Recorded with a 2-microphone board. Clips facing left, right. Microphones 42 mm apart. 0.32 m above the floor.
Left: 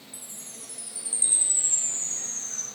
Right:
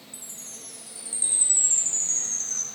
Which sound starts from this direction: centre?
A chime, at 0.1 s.